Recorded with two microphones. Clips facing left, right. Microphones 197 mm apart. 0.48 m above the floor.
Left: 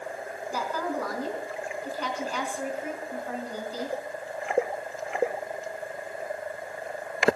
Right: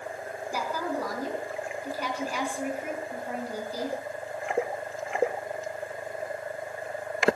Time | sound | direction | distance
0.5 | a woman speaking | 10° right (ahead or behind) | 4 m